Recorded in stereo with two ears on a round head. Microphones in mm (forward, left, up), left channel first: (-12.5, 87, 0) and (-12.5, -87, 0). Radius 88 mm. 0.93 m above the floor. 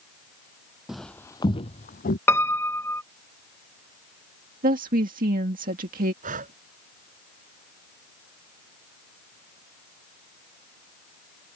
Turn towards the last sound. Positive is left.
turn(degrees=-45)  # may be behind; listen again after turning